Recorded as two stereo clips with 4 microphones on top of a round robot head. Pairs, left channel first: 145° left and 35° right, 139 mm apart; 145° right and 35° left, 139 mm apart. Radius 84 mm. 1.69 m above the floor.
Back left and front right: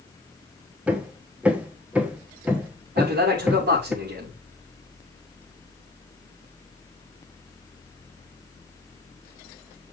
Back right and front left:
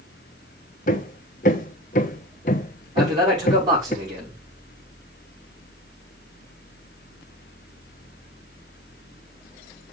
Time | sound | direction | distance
0.9 | hammering | 115° right | 0.9 m
3.0 | a man speaking | 25° right | 4 m